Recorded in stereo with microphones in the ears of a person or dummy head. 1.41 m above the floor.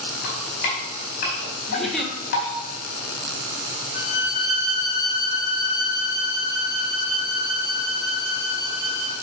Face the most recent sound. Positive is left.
turn(degrees=50)  # may be behind; listen again after turning